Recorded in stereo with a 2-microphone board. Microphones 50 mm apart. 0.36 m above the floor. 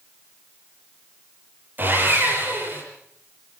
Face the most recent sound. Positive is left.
turn(degrees=-35)  # may be behind; listen again after turning